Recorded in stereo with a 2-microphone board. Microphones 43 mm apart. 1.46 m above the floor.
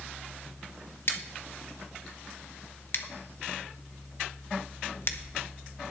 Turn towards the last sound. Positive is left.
turn(degrees=60)  # may be behind; listen again after turning